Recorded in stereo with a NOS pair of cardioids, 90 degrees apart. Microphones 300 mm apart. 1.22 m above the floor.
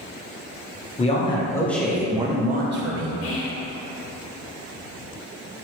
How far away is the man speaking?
About 1.2 m.